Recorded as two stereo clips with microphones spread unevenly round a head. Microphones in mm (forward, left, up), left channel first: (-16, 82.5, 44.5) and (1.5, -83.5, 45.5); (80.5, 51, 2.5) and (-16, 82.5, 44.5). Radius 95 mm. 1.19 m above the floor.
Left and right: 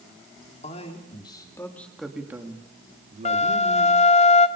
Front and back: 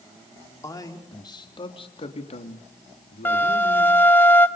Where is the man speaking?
40° left, 3.5 m; by 4.0 s 50° right, 3.5 m.